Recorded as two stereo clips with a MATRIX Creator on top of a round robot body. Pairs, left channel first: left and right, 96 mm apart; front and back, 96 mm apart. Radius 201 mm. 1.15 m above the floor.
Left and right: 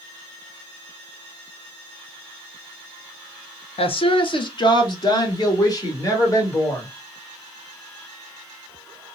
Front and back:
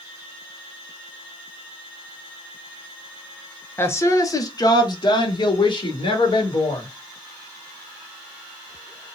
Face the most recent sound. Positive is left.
turn(degrees=35)